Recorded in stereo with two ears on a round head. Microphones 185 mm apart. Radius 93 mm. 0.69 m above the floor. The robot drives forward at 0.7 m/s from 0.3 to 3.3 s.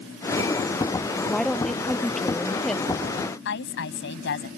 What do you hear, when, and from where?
1.3 s a woman speaking: 5° left (ahead or behind)
3.5 s a woman speaking: 60° left (ahead or behind)